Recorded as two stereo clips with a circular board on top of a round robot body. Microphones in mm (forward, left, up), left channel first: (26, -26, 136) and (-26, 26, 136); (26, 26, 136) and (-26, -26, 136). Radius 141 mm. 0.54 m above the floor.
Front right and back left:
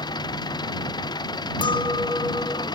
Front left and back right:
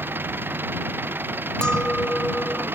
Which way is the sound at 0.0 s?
70° right.